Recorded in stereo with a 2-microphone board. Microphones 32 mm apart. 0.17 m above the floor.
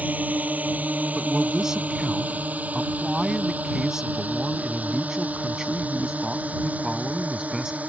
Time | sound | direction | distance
0.0 | a drone | 65° right (ahead or behind) | ?
1.1 | a man speaking | 20° right (ahead or behind) | ?